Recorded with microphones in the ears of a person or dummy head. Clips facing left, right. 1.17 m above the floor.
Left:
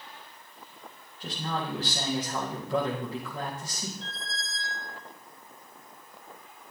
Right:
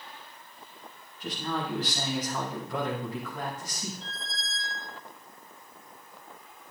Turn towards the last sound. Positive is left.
turn(degrees=55)  # may be behind; listen again after turning